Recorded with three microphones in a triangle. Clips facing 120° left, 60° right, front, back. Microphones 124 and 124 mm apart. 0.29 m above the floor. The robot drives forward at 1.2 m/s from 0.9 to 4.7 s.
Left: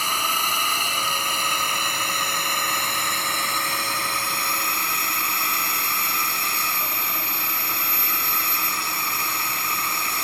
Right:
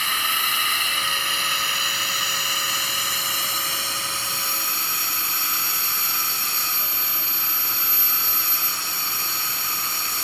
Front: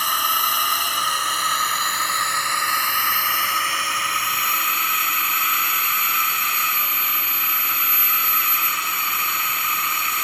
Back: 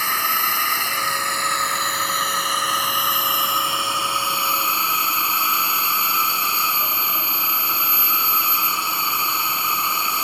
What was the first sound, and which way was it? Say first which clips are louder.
A drone: left 3 dB, front 1 dB; 75° left.